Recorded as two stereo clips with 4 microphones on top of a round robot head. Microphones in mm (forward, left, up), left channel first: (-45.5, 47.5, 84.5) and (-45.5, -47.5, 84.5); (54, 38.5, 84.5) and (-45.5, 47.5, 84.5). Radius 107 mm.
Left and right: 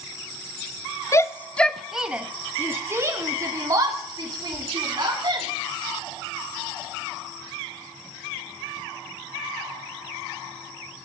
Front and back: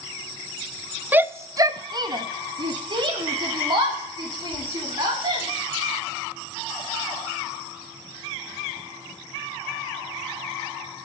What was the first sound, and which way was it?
A shout, 115° left.